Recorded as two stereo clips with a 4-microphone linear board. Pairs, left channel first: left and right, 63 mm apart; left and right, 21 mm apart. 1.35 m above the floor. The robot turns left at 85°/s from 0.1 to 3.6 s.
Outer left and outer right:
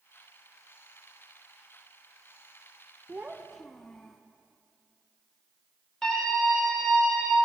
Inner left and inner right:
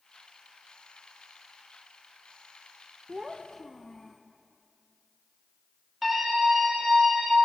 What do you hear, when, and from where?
3.1 s a child speaking: 145° right, 0.6 m; by 4.2 s 170° left, 0.6 m
6.0 s a scream: 10° left (ahead or behind), 4.5 m